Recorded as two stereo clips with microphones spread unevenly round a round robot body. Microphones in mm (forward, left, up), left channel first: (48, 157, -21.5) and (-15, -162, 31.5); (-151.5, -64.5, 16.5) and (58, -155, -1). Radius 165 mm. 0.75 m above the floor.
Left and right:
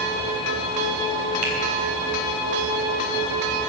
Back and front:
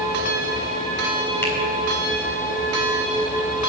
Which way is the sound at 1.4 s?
125° right.